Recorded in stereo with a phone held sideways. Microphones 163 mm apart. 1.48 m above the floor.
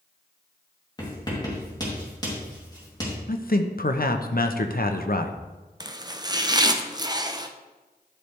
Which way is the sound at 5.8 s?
25° right (ahead or behind).